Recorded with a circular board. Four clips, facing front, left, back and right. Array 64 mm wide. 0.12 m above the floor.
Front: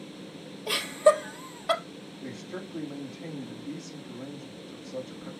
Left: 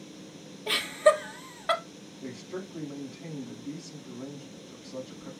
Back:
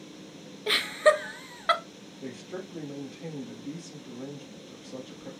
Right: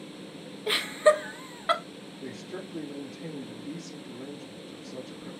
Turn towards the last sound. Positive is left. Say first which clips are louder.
# left 1 dB, back 1 dB
turn(degrees=-170)